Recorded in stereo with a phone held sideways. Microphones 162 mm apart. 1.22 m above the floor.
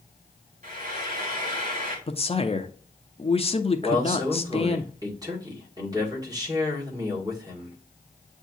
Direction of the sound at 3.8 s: 25° right (ahead or behind).